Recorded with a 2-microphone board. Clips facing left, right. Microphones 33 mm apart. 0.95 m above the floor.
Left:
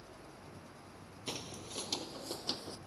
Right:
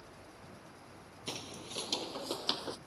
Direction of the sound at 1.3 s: 5° right (ahead or behind).